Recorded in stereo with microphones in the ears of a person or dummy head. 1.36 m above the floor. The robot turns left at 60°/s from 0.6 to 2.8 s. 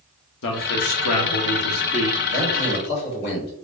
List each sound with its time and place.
0.4 s a man speaking: 115° left, 1.0 m; by 2.2 s 20° left, 1.0 m
2.3 s a man speaking: 80° left, 2 m; by 3.5 s 50° left, 2 m